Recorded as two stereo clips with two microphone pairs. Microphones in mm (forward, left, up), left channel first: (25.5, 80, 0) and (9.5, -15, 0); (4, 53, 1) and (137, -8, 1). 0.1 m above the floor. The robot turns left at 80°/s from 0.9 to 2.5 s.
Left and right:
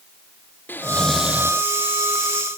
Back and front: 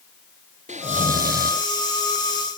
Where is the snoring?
10° left; by 1.6 s 50° right.